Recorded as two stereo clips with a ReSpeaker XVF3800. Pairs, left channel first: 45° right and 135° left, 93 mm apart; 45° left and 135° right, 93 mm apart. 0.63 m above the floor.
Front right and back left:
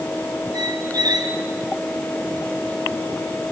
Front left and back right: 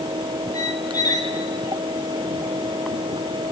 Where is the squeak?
95° left, 2.5 m.